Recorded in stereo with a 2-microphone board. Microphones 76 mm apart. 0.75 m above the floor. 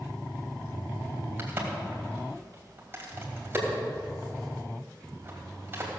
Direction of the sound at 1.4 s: 30° right (ahead or behind).